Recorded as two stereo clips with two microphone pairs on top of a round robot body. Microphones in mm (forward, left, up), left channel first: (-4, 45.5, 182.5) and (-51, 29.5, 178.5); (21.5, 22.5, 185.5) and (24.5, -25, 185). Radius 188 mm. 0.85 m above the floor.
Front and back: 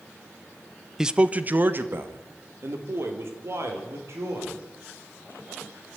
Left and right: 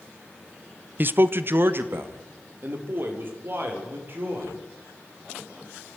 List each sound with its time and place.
1.0 s a man speaking: 90° right, 1.0 m; by 4.5 s 130° right, 5.5 m